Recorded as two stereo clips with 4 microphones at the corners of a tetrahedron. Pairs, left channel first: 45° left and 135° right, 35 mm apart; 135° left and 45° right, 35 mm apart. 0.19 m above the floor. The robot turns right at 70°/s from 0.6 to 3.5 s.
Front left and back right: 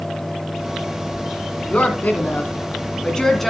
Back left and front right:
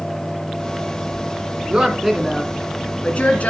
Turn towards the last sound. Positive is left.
turn(degrees=135)